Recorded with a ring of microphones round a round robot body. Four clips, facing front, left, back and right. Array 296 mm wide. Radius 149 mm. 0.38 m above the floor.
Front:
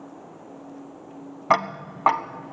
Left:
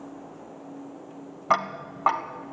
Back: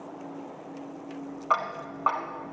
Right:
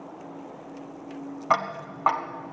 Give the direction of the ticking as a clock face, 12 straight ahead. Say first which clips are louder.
Even, front 6 dB; 12 o'clock.